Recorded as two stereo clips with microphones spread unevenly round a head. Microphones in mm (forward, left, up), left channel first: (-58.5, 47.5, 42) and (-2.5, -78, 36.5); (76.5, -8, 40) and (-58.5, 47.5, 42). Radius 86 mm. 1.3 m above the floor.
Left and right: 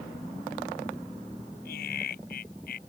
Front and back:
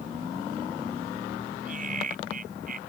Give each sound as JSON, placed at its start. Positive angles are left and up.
{"t": 1.6, "sound": "laughter", "azimuth_deg": 125}